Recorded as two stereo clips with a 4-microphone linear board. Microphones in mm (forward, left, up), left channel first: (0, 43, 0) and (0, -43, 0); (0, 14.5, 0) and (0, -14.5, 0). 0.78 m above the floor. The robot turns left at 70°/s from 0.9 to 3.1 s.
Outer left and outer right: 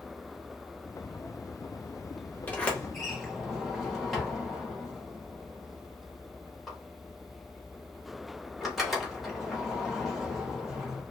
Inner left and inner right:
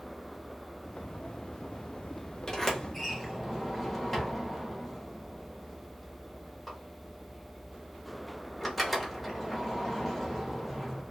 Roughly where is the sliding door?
Centre.